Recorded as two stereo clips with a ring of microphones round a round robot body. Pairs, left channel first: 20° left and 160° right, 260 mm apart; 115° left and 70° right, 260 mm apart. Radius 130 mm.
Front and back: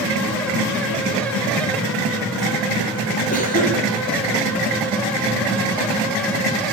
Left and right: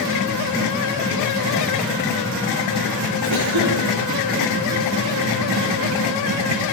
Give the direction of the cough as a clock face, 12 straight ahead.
1 o'clock.